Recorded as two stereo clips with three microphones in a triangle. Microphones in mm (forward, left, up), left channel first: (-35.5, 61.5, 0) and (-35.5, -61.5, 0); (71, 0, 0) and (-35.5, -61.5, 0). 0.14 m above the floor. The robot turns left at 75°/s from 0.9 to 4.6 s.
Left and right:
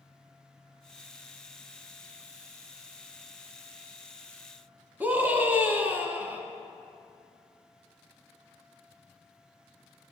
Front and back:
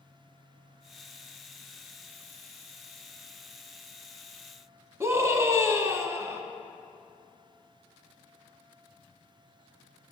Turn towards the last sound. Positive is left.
turn(degrees=-140)